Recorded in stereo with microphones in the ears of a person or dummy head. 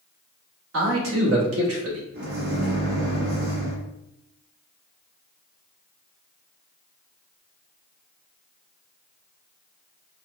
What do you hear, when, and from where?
0.7 s a man speaking: 75° right (ahead or behind), 1.4 m
2.1 s a microwave: 70° right (ahead or behind), 1.8 m